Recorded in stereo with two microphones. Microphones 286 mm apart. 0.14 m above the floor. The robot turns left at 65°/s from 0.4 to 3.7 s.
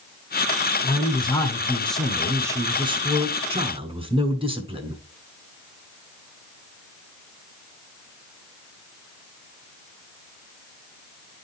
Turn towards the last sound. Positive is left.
turn(degrees=-20)  # may be behind; listen again after turning